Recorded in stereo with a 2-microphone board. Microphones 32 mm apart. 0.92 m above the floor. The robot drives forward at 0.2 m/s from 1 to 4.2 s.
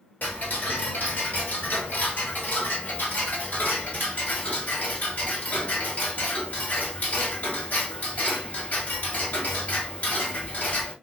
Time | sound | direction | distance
0.2 | ticking | 70° left (ahead or behind) | 1.3 m